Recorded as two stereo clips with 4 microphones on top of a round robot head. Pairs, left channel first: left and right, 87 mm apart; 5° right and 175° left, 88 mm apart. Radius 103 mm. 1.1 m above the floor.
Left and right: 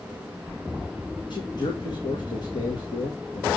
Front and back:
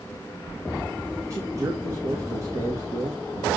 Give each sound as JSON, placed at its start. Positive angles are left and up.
{"t": 1.3, "sound": "a man speaking", "azimuth_deg": 120, "distance_m": 2.0}